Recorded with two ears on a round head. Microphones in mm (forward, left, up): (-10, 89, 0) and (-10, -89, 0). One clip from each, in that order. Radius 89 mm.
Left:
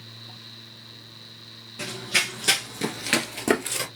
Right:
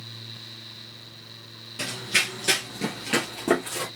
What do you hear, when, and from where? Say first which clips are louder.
1.8 s running footsteps: even; 20° right (ahead or behind), 0.8 m; by 3.9 s 55° left (ahead or behind), 1.4 m